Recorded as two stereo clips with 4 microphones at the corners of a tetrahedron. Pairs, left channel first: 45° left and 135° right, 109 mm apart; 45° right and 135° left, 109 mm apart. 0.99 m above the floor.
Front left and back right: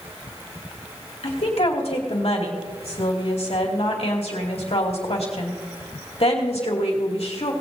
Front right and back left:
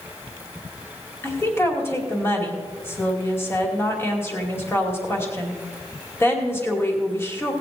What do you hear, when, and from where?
1.2 s a woman speaking: 25° left, 2.5 m